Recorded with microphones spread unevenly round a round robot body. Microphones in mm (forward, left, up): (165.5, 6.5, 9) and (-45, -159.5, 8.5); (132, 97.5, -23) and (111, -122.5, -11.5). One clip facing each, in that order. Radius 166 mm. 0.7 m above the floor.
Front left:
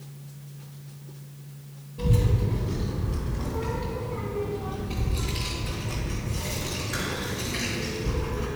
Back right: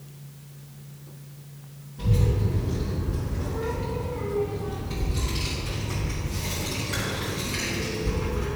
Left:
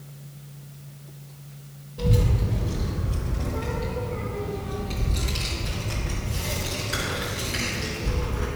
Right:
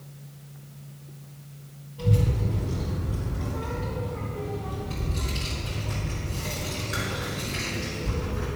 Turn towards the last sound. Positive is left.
turn(degrees=145)